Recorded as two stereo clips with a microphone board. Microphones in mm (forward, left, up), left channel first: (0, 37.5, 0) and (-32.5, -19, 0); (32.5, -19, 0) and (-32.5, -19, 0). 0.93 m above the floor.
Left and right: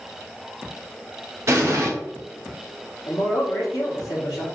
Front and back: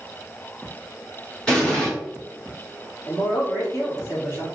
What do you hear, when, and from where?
1.5 s an explosion: 80° right, 1.6 m
3.1 s a man speaking: 50° left, 2 m